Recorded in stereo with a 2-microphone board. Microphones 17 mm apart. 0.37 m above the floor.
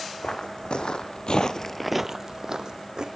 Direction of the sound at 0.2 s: 70° left (ahead or behind).